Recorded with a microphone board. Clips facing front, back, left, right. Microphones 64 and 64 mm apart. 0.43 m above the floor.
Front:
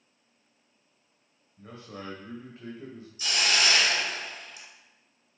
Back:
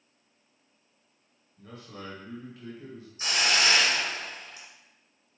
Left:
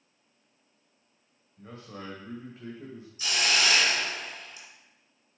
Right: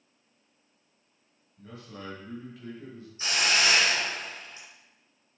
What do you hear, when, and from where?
1.6 s a man speaking: 50° left, 1.9 m; by 3.1 s 35° left, 1.4 m
3.2 s a hiss: 140° right, 1.7 m